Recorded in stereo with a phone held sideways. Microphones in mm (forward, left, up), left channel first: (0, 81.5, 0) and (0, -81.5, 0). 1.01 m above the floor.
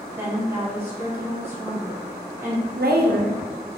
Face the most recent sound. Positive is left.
turn(degrees=-75)  # may be behind; listen again after turning